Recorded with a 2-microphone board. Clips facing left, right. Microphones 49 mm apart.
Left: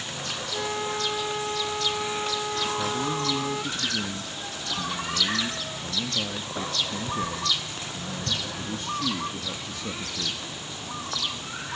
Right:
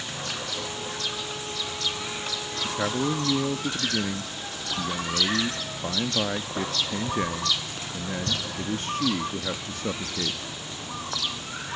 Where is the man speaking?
45° right (ahead or behind), 0.7 m.